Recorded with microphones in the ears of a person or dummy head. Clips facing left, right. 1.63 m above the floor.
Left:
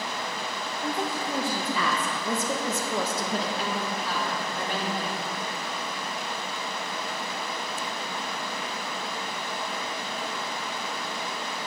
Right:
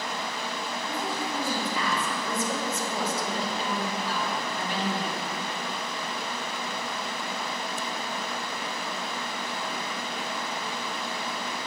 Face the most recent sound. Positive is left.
turn(degrees=40)  # may be behind; listen again after turning